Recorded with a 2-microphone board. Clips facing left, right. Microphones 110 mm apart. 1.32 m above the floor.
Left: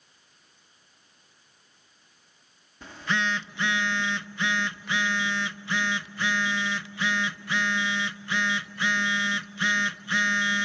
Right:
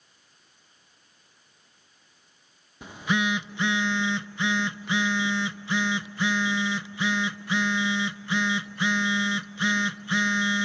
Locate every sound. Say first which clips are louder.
2.8 s a phone buzzing: right 3 dB; 15° right (ahead or behind), 0.5 m